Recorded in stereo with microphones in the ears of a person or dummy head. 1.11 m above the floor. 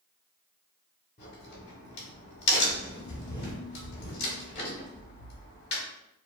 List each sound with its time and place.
1.2 s a crack: 35° left (ahead or behind), 1.4 m